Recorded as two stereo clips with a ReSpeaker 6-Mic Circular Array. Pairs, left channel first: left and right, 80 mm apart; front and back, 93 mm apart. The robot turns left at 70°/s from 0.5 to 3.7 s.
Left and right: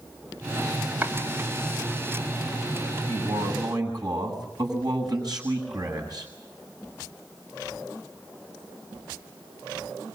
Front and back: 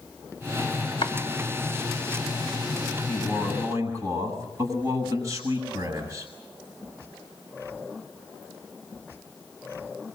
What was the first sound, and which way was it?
Chopping, 15° right.